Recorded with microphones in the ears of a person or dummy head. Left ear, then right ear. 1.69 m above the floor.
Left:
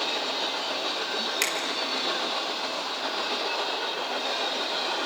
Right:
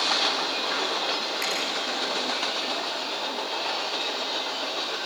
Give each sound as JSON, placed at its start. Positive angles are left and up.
{"t": 1.4, "sound": "a finger snap", "side_deg": 75, "distance_m": 5.0}